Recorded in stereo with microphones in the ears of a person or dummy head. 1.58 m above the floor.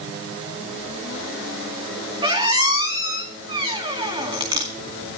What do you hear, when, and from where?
2.2 s a squeak: 25° right (ahead or behind), 2 m